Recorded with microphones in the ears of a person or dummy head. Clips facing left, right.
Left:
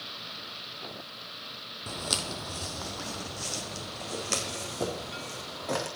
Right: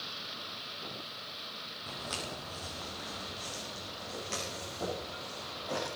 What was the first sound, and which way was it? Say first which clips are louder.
Footsteps: left 5 dB; 55° left (ahead or behind).